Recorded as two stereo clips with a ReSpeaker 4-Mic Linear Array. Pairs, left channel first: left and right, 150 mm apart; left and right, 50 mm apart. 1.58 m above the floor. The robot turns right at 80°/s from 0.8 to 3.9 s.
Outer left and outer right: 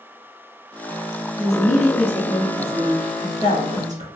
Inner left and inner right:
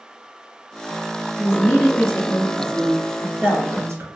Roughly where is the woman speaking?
Ahead left.